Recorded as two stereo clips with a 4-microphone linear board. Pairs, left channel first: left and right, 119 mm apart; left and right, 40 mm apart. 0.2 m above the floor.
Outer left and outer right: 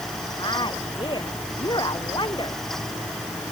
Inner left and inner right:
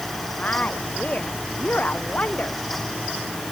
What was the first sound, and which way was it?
A woman speaking, 40° left (ahead or behind).